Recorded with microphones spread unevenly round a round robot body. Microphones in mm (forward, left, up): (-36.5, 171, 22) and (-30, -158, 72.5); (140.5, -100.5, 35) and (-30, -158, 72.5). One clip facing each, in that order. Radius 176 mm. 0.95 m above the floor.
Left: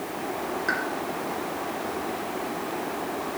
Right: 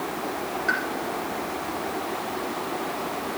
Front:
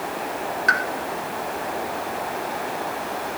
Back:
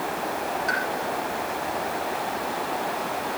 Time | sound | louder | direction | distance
0.7 | a pop | even, front 2 dB | straight ahead | 1.7 m